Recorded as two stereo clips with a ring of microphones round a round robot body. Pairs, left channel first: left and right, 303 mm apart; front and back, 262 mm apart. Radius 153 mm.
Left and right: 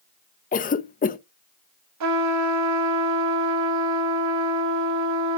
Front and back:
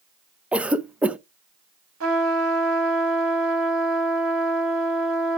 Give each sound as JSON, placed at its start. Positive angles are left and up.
{"t": 0.5, "sound": "a cough", "azimuth_deg": 100, "distance_m": 0.7}
{"t": 2.0, "sound": "a trumpet", "azimuth_deg": -130, "distance_m": 1.6}